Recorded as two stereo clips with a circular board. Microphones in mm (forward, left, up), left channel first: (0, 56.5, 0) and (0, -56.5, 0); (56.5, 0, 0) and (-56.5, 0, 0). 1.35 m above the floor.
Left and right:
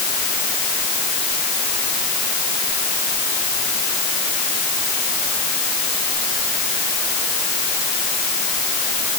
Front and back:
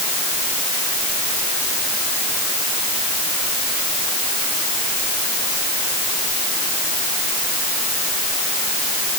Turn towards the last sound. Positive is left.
No sound to turn to.